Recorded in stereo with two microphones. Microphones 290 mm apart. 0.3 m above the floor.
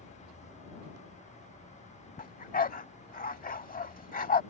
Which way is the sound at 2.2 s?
30° left (ahead or behind).